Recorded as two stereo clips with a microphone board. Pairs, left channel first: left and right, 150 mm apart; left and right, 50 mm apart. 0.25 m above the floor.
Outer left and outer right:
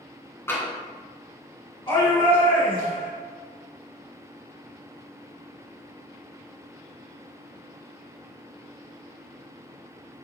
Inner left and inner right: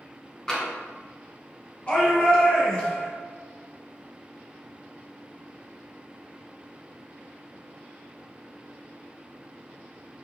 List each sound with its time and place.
0.5 s tapping: 15° left (ahead or behind), 3 m
1.9 s a shout: 35° left (ahead or behind), 2 m